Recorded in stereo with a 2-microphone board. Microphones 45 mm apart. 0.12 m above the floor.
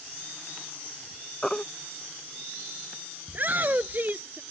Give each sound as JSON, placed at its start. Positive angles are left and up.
{"t": 1.4, "sound": "a baby crying", "side_deg": 15}
{"t": 3.3, "sound": "a shout", "side_deg": -45}